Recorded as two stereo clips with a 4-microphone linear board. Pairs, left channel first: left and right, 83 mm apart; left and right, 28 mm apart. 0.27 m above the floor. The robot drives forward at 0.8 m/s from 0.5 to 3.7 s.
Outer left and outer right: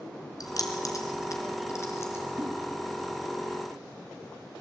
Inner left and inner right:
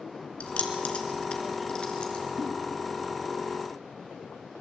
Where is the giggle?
25° right (ahead or behind), 1.7 m.